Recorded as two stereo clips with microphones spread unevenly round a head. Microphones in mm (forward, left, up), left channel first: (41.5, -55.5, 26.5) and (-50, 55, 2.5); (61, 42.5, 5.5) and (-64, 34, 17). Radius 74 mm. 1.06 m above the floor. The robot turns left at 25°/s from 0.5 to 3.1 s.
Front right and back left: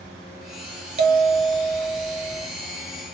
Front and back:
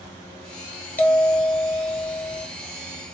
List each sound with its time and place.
1.0 s a bell: 80° left, 0.6 m; by 2.5 s 45° left, 0.6 m